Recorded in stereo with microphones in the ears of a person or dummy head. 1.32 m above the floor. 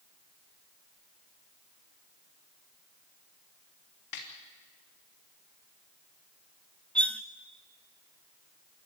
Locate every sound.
4.1 s a snare drum: 55° left (ahead or behind), 3 m
7.0 s cutlery clinking: 5° left (ahead or behind), 0.7 m